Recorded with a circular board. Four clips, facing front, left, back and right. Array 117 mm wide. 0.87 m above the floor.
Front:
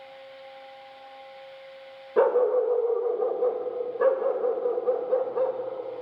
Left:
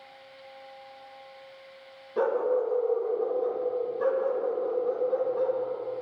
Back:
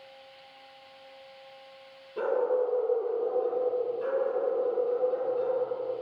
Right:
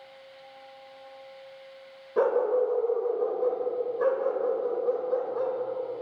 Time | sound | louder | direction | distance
2.2 | a dog barking | right 2 dB, front 6 dB | 15° right | 1.5 m